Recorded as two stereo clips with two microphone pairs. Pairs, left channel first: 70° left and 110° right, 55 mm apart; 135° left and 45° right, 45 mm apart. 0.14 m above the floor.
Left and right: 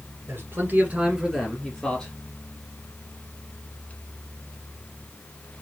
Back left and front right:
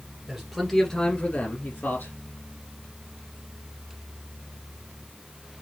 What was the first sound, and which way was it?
A man speaking, 115° right.